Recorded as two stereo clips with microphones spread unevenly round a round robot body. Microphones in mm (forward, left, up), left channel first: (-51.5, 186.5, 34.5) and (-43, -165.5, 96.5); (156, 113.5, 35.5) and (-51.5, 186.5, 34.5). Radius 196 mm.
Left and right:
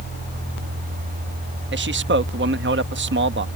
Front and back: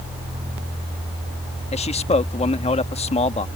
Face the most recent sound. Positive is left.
turn(degrees=-45)